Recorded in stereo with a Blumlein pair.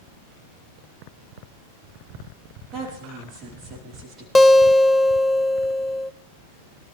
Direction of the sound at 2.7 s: 30° right.